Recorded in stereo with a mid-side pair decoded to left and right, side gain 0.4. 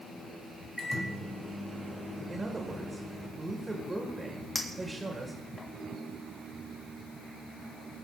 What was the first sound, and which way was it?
A microwave, 10° left.